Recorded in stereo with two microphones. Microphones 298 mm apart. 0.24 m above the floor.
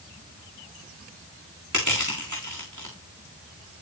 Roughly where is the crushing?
Right.